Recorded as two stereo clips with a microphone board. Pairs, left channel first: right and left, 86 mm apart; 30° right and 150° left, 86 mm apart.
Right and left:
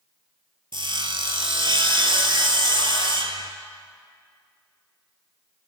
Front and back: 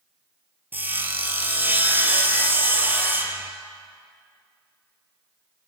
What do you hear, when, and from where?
0.7 s sawing: 85° left, 0.9 m